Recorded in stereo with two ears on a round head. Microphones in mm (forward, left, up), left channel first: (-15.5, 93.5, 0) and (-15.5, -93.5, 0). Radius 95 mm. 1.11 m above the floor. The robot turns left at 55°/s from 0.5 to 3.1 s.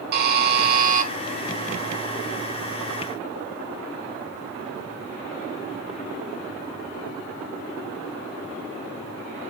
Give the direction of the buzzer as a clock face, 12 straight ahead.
3 o'clock.